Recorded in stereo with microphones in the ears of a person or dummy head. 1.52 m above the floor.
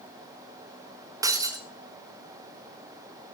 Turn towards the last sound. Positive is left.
turn(degrees=-10)  # may be behind; listen again after turning